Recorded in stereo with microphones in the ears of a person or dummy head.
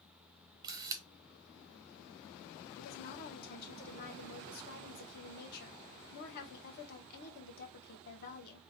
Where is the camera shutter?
20° right (ahead or behind), 0.6 m.